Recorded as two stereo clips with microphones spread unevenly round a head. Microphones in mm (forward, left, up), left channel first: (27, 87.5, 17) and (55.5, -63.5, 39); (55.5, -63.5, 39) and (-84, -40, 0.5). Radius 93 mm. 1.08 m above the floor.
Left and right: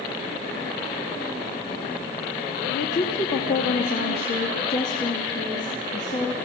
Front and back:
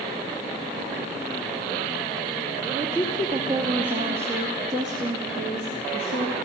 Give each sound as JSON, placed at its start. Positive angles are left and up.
{"t": 2.7, "sound": "a woman speaking", "azimuth_deg": 95, "distance_m": 2.5}